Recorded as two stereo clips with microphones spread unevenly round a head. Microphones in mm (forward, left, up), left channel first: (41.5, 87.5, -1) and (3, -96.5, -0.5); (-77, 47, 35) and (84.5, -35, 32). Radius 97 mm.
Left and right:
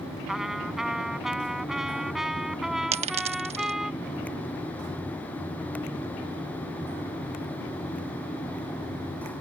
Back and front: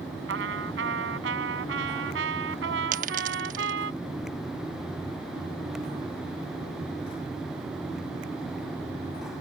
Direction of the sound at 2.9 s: 60° right.